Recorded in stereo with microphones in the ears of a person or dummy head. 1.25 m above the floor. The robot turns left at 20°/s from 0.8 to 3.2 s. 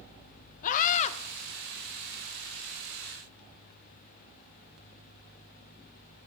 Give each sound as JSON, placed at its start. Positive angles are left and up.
{"t": 0.6, "sound": "a scream", "side_deg": 40, "distance_m": 0.8}